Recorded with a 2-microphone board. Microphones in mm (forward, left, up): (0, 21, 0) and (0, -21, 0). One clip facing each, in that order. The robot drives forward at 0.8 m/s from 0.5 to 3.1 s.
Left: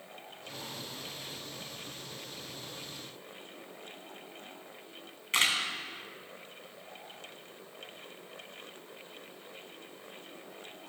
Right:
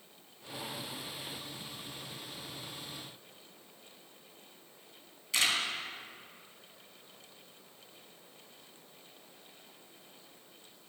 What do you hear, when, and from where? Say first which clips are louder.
5.3 s a camera shutter: left 2 dB; 40° left (ahead or behind), 2.5 m